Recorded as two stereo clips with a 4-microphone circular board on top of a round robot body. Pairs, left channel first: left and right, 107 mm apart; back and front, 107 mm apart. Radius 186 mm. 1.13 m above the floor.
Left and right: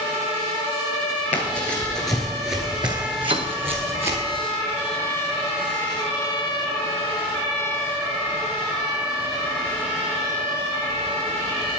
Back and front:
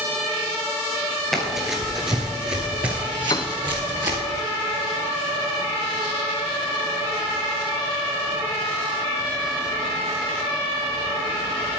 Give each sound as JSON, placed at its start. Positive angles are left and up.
{"t": 1.3, "sound": "running footsteps", "azimuth_deg": 95, "distance_m": 1.6}
{"t": 3.3, "sound": "a piano", "azimuth_deg": -125, "distance_m": 0.6}